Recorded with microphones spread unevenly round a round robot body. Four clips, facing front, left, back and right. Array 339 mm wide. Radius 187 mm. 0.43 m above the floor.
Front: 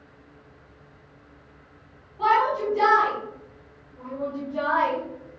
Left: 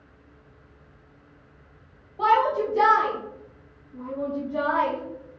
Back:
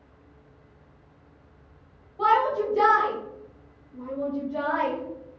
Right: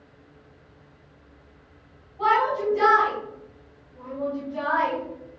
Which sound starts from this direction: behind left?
A shout, at 2.2 s.